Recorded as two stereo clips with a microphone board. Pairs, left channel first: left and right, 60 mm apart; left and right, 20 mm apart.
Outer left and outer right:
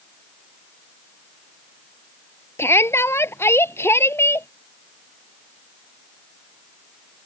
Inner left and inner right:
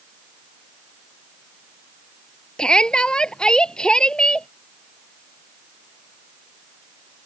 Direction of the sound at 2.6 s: 45° left (ahead or behind).